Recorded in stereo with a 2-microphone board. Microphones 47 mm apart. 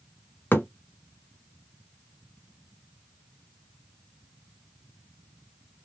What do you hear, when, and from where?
0.5 s a thud: 45° left (ahead or behind), 1.0 m